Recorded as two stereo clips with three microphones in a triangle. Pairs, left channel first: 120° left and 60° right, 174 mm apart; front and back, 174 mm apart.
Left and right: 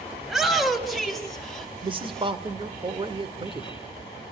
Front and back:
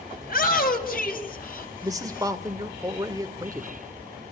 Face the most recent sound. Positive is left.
turn(degrees=-115)